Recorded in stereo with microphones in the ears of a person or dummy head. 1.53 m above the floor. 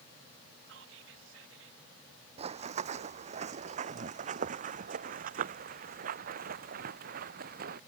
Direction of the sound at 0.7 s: 85° right.